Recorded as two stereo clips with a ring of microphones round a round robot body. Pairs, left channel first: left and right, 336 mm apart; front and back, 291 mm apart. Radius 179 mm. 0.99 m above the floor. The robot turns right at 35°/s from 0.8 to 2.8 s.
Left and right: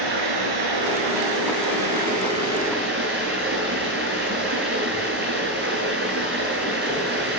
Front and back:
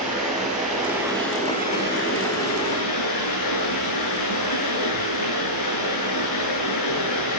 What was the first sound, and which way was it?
Running water, 100° right.